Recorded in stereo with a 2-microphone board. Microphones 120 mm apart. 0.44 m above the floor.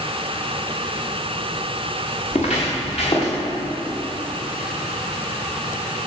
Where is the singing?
I don't hear singing.